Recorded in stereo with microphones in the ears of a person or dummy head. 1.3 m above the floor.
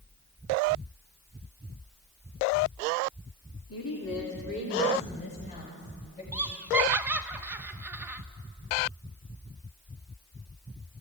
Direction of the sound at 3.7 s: 80° left.